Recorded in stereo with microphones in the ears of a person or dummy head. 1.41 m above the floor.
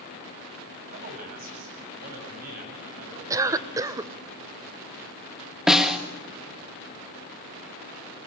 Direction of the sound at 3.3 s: 15° right (ahead or behind).